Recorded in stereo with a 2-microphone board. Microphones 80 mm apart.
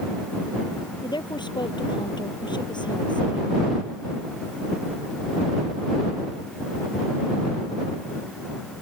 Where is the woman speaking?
70° left (ahead or behind).